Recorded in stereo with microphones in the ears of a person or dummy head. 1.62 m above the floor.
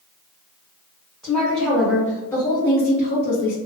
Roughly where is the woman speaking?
Centre.